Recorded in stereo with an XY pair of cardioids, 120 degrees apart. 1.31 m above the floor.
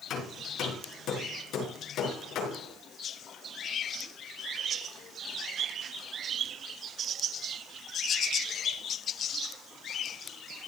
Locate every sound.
0.1 s hammering: 60° left, 6 m